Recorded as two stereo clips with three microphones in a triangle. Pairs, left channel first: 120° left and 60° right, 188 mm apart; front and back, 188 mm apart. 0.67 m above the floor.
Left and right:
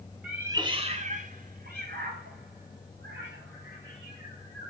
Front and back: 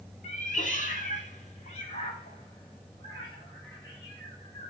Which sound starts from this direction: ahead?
A cat meowing, at 0.2 s.